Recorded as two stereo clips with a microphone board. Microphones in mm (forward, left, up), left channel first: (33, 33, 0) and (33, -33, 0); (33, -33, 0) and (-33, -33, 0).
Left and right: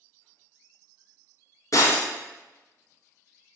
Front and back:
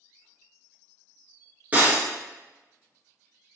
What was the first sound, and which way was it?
Breaking glass, 120° left.